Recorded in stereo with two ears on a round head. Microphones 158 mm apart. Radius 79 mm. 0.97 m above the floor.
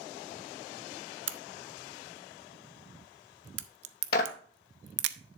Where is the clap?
60° left (ahead or behind), 1.1 m.